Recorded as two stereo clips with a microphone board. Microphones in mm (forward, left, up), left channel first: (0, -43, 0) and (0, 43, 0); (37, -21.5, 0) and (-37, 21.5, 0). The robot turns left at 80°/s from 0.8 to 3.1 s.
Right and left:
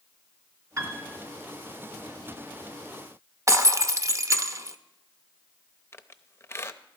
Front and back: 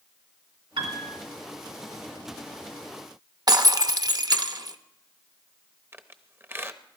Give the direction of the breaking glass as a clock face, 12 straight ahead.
8 o'clock.